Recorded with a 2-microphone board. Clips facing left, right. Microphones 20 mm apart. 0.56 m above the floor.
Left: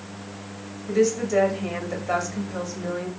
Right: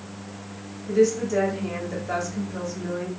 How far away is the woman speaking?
About 1.2 m.